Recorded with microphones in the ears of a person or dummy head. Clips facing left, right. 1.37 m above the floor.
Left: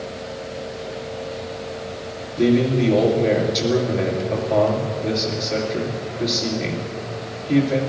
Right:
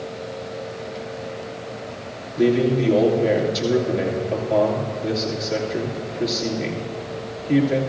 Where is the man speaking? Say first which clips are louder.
Left 1 dB; 5° right (ahead or behind), 2.5 m.